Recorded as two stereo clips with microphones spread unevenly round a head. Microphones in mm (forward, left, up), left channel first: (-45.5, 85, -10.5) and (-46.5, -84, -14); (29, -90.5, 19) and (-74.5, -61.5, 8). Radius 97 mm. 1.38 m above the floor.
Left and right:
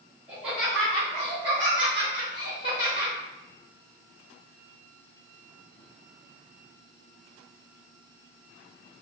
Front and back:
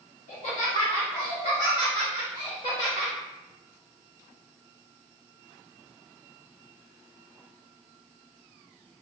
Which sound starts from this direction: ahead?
Laughter, at 0.3 s.